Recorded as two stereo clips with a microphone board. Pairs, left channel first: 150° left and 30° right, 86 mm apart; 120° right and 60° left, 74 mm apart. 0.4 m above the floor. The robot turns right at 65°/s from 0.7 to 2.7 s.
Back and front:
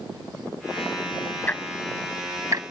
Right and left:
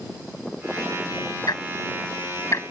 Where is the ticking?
145° right; by 2.6 s 70° right.